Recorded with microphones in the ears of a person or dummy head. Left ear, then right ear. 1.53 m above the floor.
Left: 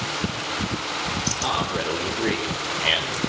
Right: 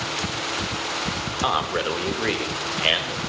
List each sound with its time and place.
1.4 s a man speaking: 65° right (ahead or behind), 4 m; by 3.2 s 80° right, 6.5 m